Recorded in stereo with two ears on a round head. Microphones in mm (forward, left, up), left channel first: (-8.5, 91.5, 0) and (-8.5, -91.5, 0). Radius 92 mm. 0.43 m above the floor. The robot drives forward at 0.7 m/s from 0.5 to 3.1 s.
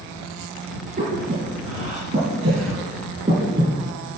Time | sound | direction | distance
1.0 | breathing | 35° right (ahead or behind) | 4.5 m